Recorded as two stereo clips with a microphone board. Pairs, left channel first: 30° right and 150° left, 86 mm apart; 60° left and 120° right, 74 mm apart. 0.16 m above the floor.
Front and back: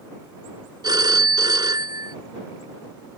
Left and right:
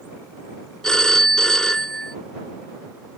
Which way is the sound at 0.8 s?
140° left.